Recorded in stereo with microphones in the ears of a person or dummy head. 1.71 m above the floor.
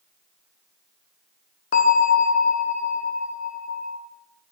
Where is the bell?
50° left (ahead or behind), 0.9 m.